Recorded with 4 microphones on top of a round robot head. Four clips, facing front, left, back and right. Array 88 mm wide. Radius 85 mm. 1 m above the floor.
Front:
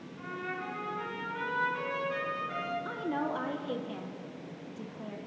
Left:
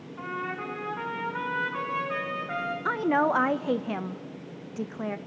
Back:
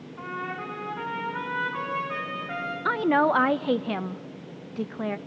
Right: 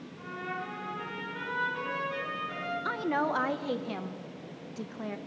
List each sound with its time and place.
0.2 s a trumpet: 135° left, 3.5 m
2.9 s a woman speaking: 155° left, 0.8 m